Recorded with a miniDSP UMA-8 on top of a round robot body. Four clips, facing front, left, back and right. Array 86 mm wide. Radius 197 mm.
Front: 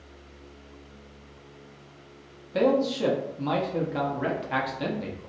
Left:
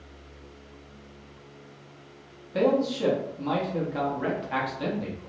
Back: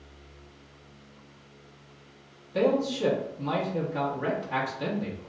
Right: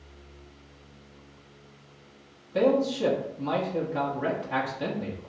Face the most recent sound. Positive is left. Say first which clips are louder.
# even, front 2 dB
turn(degrees=10)